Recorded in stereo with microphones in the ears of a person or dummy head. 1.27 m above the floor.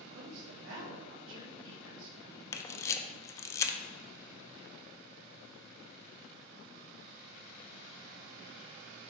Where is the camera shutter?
15° left (ahead or behind), 0.7 m.